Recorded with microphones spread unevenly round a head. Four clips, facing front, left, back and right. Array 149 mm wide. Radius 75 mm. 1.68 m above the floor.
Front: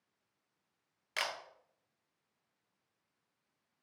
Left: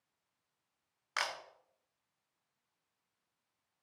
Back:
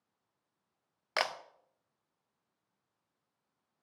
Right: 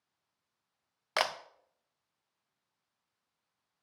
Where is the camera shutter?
110° right, 0.5 m.